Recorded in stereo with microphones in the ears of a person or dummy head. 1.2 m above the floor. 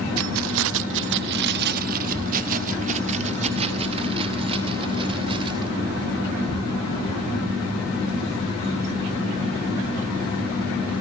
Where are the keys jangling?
70° right (ahead or behind), 0.9 m; by 5.7 s 30° right (ahead or behind), 3.5 m.